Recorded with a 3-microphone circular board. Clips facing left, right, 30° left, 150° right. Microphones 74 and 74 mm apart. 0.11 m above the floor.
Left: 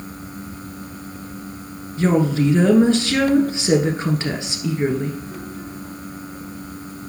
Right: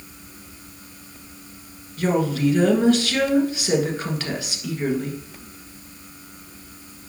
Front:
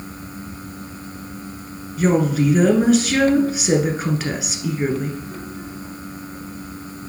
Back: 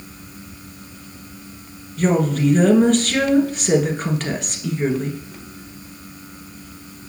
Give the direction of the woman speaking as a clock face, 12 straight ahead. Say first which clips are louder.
Left 3 dB, front 1 dB; 9 o'clock.